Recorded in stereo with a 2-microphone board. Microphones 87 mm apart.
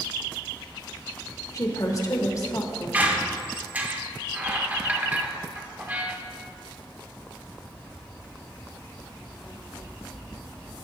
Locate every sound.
1.5 s a woman speaking: 40° left (ahead or behind), 0.9 m
2.9 s a squeak: 20° right (ahead or behind), 0.7 m